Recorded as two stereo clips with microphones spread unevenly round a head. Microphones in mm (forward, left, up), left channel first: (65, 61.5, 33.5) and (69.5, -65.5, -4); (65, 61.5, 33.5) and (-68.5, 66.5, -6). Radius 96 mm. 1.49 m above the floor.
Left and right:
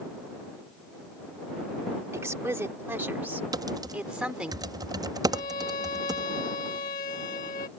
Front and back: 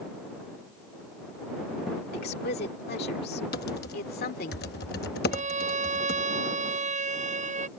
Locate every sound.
2.1 s a woman speaking: 15° right; by 4.5 s straight ahead
3.5 s typing on a keyboard: 25° right
5.3 s a violin: 145° left